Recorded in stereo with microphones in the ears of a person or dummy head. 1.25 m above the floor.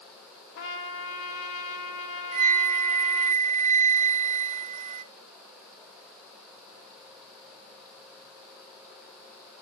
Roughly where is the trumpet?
Left.